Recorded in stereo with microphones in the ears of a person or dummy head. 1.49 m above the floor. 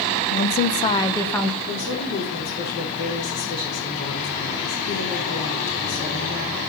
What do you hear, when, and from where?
0.3 s a woman speaking: 55° left (ahead or behind), 1.3 m; by 1.6 s centre (ahead or behind), 1.6 m
1.7 s a woman speaking: 50° left (ahead or behind), 5 m